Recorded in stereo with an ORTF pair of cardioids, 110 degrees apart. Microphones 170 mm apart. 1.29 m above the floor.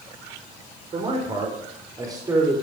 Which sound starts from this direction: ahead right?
A man speaking, at 0.9 s.